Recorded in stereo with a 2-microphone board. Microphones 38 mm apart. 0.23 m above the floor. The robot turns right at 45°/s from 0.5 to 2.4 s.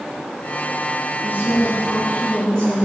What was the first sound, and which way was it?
A woman speaking, 105° left.